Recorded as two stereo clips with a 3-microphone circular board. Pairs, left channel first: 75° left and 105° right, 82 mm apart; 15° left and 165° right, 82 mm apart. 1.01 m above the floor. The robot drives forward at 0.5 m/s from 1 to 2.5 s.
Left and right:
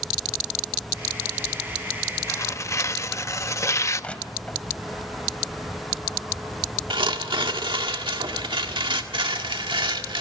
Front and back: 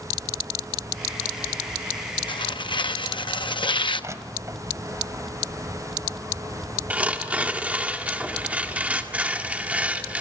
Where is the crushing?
150° left, 1.5 m.